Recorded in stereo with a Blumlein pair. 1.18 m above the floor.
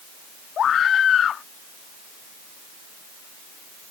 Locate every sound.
0.6 s a scream: 25° left